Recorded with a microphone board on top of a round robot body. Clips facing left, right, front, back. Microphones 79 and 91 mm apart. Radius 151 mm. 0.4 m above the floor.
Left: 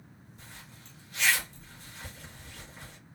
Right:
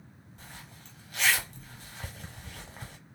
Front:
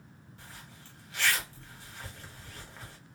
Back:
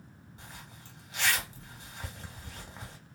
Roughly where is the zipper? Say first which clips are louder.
Right 3 dB, back 1 dB; right.